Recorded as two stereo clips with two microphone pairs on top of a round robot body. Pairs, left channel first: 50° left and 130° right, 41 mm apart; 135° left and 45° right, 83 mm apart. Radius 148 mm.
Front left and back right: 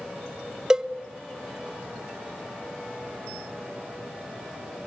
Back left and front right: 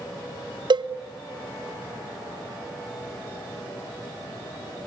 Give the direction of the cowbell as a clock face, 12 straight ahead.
2 o'clock.